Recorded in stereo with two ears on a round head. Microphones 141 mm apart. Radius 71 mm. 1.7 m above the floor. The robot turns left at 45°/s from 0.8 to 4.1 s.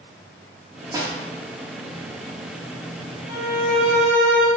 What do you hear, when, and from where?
0.9 s a snare drum: 20° right (ahead or behind), 0.5 m
3.3 s a violin: 60° right, 1.0 m; by 4.5 s 95° right, 1.0 m